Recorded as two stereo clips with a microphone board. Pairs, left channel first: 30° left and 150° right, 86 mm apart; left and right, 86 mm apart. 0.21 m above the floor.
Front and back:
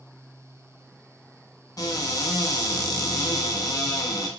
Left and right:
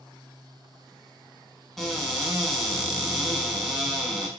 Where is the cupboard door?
Straight ahead, 0.7 m.